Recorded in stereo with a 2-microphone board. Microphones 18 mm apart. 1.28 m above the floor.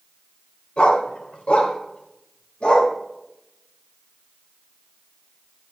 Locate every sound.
0.8 s a dog barking: 65° left (ahead or behind), 1.8 m; by 2.9 s 50° left (ahead or behind), 2.5 m